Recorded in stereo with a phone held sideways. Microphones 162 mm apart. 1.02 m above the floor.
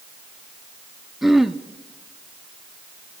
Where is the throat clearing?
Centre (ahead or behind), 0.6 m.